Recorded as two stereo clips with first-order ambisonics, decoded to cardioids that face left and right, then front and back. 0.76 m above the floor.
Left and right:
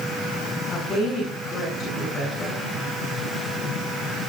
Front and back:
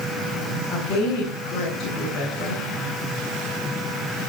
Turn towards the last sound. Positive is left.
turn(degrees=30)